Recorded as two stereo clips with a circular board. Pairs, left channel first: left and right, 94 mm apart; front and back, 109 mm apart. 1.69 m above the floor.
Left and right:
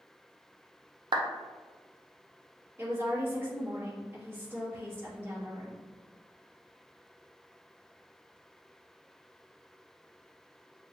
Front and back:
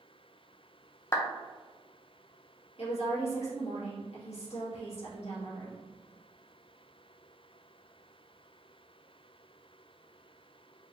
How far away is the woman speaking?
About 1.8 m.